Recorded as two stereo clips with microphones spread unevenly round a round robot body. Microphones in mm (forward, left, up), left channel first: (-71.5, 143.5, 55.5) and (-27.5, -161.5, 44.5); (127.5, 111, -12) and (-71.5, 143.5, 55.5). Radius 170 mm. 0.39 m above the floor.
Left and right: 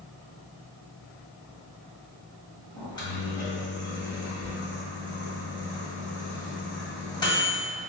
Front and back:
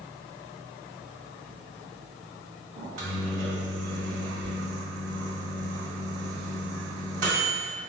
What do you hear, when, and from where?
2.8 s a microwave: 175° left, 1.6 m